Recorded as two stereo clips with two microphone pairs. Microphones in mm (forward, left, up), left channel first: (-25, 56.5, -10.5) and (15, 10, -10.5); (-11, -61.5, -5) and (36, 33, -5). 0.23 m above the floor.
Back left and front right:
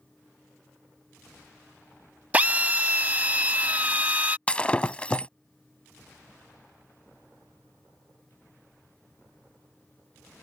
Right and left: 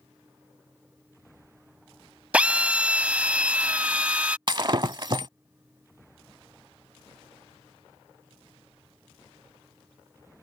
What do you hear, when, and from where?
2.3 s a drill: 5° right
4.5 s breaking glass: 75° left